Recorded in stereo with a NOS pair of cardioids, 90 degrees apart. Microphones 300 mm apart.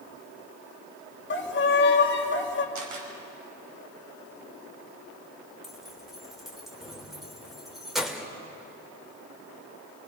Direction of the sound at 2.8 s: 70° right.